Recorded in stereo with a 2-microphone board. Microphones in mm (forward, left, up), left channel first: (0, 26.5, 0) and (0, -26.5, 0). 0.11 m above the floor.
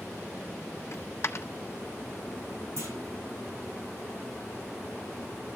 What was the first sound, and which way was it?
A dropped coin, 55° left (ahead or behind).